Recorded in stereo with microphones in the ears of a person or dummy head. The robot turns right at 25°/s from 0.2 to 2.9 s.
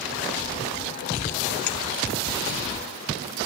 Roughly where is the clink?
Left.